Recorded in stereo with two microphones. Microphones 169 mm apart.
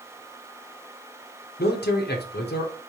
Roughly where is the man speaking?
Left.